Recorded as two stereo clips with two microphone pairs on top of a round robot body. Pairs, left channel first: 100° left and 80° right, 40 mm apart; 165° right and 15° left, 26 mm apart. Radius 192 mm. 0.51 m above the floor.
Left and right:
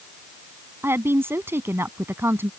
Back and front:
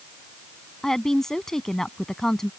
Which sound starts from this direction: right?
A woman speaking, at 0.8 s.